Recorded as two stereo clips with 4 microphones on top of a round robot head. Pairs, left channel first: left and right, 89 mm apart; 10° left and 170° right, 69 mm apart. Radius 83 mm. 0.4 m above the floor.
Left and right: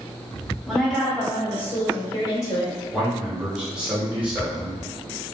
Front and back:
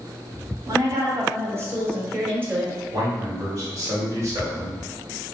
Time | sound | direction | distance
0.7 | a woman speaking | straight behind | 1.2 m
2.9 | a man speaking | 165° right | 1.8 m